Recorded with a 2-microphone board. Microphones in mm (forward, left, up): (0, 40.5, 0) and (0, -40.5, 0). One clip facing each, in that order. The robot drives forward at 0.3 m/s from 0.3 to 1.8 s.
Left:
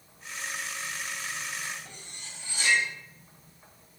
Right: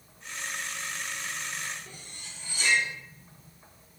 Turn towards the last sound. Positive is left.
turn(degrees=75)  # may be behind; listen again after turning